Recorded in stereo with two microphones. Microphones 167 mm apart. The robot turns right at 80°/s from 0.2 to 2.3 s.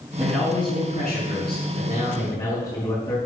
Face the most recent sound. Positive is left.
turn(degrees=155)